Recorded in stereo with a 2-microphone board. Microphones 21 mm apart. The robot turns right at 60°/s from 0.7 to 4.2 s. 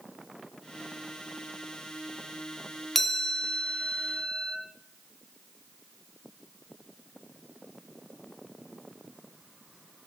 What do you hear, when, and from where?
3.0 s a chime: 10° left, 1.7 m; by 4.6 s 85° left, 1.7 m